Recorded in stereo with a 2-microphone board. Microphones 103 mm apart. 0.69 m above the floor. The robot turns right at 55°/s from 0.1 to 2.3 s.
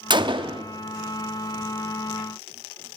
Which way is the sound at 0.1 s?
110° right.